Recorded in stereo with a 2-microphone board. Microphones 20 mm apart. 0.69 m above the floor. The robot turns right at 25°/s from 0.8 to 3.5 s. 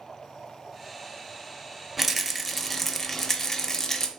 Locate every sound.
2.0 s a rattle: 10° right, 0.5 m; by 4.1 s 30° left, 0.5 m